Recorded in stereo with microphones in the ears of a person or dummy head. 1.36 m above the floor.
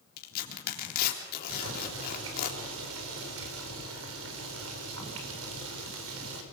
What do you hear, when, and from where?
0.2 s tearing paper: 50° left (ahead or behind), 3.5 m
1.5 s boiling: 75° right (ahead or behind), 5 m